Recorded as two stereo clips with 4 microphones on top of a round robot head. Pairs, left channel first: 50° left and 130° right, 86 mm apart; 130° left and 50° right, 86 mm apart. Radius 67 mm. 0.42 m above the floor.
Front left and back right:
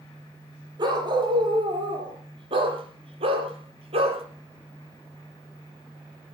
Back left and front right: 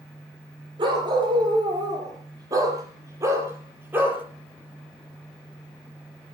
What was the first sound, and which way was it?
A dog barking, 90° right.